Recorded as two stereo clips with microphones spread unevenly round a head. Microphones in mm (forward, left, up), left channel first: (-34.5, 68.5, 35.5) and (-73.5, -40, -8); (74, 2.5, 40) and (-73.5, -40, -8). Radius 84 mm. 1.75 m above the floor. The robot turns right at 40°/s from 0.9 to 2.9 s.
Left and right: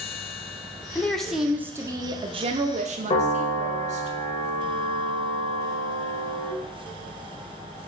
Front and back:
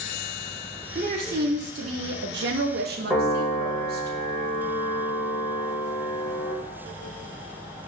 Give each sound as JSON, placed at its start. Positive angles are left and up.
{"t": 0.9, "sound": "a woman speaking", "azimuth_deg": 145, "distance_m": 0.5}
{"t": 3.1, "sound": "a piano", "azimuth_deg": 115, "distance_m": 1.2}